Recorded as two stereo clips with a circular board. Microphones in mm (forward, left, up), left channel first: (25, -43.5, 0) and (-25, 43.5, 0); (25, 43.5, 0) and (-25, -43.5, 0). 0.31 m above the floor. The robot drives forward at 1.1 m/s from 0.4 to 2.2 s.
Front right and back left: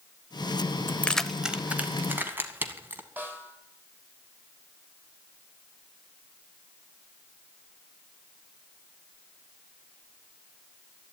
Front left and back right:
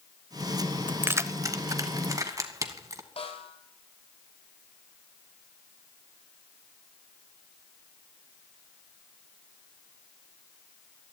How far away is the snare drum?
About 2.5 m.